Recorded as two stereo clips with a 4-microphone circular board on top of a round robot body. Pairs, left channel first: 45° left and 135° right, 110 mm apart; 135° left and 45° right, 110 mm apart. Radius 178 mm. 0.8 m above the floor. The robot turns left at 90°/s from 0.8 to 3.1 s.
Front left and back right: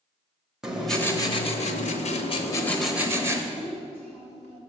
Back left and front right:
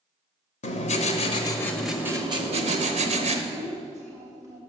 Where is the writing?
140° left, 1.0 m; by 3.4 s 65° right, 1.0 m.